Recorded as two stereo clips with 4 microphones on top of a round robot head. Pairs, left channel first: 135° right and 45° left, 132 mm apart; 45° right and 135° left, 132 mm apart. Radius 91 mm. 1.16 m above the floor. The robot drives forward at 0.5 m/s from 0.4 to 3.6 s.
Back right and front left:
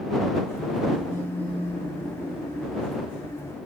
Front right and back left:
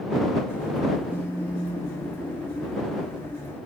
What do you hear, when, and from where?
1.0 s a phone buzzing: straight behind, 2 m